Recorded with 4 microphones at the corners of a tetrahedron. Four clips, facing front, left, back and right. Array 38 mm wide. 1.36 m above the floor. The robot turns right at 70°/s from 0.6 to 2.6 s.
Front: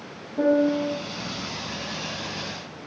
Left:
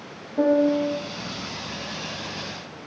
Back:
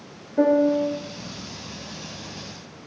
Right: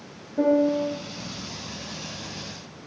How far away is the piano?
About 1.4 m.